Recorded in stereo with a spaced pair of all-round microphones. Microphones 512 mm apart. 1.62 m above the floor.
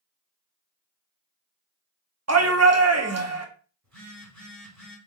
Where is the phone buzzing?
30° right (ahead or behind), 1.5 m.